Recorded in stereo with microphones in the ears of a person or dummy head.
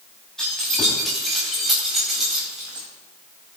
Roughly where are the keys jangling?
Centre.